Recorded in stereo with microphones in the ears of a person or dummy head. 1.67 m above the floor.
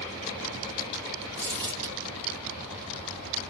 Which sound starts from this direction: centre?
Crumpling, at 1.4 s.